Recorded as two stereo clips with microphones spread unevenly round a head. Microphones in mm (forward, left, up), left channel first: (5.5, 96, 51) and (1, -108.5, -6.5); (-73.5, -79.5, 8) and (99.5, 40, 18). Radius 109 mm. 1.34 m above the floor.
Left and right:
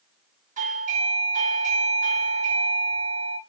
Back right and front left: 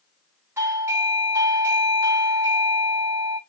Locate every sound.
0.6 s a doorbell: 45° right, 1.3 m